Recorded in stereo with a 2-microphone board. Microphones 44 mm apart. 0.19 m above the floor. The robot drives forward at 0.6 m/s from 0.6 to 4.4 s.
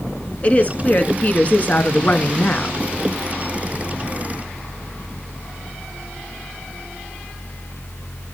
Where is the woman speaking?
30° left (ahead or behind), 2 m; by 2.8 s 40° left (ahead or behind), 1.6 m.